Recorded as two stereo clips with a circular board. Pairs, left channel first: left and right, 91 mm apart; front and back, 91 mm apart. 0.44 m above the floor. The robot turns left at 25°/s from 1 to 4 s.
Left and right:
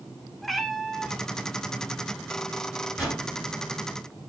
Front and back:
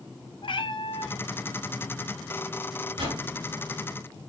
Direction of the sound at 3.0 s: 170° right.